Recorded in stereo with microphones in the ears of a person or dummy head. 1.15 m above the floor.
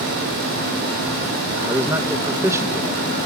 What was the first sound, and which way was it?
A man speaking, 10° right (ahead or behind).